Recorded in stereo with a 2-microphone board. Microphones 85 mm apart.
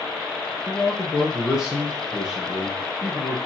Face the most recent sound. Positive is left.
turn(degrees=-10)  # may be behind; listen again after turning